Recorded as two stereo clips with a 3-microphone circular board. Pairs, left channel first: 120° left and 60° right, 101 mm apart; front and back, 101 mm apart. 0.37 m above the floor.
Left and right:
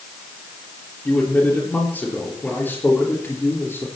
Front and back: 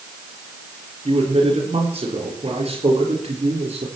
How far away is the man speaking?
About 7.5 m.